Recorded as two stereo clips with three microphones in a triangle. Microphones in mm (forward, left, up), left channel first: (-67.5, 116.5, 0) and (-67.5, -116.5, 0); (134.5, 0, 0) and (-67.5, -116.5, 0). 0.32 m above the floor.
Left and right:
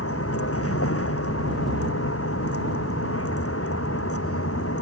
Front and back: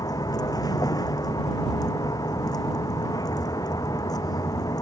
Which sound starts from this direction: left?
A vehicle, at 0.0 s.